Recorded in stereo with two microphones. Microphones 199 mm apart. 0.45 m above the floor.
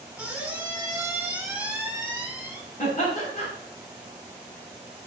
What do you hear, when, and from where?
0.2 s a squeak: 10° right (ahead or behind), 0.7 m
2.8 s laughter: 40° left (ahead or behind), 1.4 m